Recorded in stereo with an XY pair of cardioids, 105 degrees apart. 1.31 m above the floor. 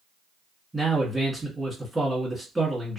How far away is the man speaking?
About 1.2 m.